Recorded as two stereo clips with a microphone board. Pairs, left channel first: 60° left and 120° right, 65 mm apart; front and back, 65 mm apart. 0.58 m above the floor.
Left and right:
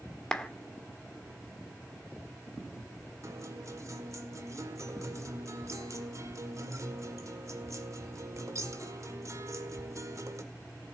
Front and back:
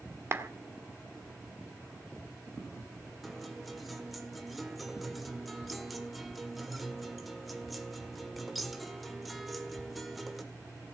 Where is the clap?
135° left, 1.4 m.